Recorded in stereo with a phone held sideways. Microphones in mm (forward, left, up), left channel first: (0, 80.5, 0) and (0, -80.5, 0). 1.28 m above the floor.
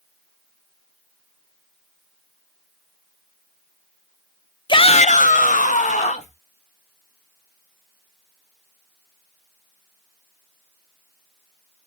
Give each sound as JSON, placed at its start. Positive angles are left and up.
{"t": 4.7, "sound": "a shout", "side_deg": 30, "distance_m": 0.5}